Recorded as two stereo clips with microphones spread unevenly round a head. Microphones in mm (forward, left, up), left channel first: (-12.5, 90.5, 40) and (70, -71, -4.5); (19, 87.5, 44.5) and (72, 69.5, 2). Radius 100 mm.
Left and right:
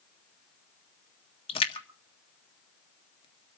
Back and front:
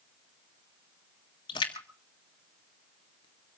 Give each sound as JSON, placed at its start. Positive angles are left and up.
{"t": 1.5, "sound": "a splash", "azimuth_deg": -175, "distance_m": 1.5}